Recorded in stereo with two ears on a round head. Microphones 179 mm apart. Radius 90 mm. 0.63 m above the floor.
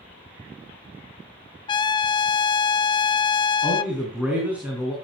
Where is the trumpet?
25° left (ahead or behind), 0.6 m.